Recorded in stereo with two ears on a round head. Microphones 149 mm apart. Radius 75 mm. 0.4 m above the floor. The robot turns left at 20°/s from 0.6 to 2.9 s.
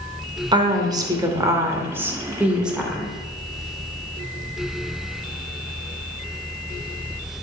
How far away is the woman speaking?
About 1.5 m.